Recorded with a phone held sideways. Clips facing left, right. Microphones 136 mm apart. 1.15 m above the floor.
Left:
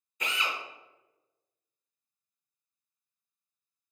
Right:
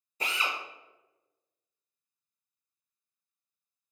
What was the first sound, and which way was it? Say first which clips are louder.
A drill: even; 35° right (ahead or behind).